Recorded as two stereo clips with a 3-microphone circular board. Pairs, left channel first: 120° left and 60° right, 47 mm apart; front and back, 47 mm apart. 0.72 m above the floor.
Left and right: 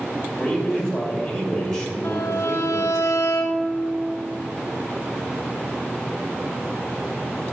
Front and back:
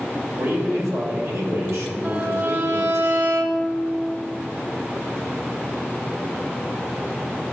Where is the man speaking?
165° right, 2.5 m.